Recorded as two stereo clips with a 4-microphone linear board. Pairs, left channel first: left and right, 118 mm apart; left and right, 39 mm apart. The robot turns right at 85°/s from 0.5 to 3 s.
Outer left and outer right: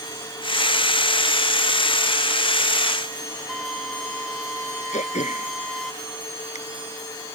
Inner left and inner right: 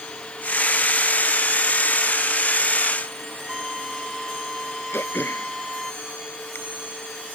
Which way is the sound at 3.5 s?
Centre (ahead or behind).